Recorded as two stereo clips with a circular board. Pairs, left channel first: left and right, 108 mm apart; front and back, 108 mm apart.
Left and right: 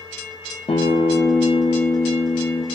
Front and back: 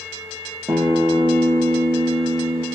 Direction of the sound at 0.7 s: 120° left.